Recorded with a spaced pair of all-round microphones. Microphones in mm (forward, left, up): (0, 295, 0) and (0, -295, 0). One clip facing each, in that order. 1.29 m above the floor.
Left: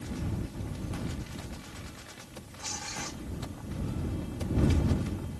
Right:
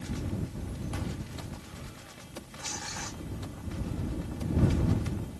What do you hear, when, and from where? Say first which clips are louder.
2.6 s tearing paper: left 3 dB; 50° left (ahead or behind)